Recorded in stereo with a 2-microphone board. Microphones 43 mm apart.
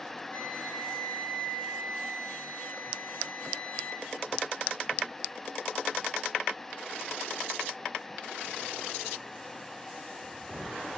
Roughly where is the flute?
Left.